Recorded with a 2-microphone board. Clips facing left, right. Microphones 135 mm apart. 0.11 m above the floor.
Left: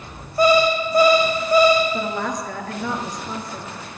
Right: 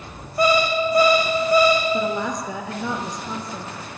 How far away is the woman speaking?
About 1.5 m.